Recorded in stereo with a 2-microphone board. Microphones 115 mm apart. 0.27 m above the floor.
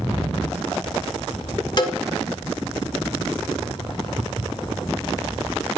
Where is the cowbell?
40° left (ahead or behind), 1.1 m.